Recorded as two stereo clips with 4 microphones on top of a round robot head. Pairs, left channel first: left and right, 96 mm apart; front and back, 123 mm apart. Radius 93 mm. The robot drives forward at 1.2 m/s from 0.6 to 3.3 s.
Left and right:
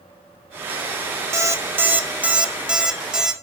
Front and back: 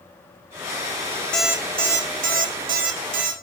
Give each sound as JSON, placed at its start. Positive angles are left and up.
{"t": 1.3, "sound": "an alarm clock", "azimuth_deg": -75, "distance_m": 0.8}